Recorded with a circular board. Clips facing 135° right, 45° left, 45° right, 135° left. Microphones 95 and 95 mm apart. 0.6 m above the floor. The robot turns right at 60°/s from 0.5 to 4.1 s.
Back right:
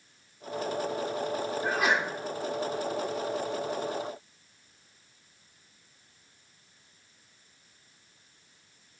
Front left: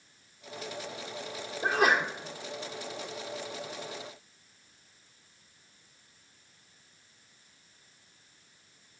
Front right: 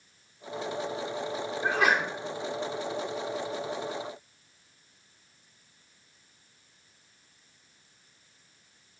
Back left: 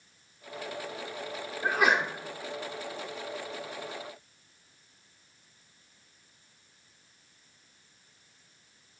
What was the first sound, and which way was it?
A sneeze, 50° left.